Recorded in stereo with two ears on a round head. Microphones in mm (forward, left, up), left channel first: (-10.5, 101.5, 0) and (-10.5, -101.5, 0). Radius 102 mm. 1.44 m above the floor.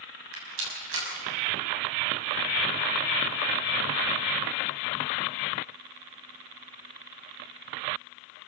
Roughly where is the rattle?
Right.